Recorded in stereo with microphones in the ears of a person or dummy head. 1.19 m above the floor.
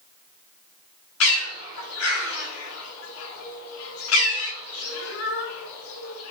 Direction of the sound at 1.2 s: 80° left.